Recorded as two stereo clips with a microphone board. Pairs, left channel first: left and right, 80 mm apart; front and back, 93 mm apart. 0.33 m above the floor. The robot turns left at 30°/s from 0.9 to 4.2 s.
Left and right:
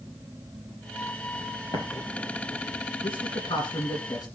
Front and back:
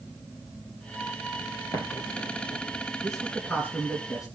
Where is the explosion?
60° left, 3 m; by 2.8 s 25° left, 3 m.